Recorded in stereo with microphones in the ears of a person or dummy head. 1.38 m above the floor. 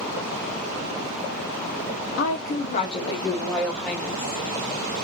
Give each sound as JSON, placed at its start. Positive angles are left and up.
{"t": 2.2, "sound": "a woman speaking", "side_deg": 70, "distance_m": 0.8}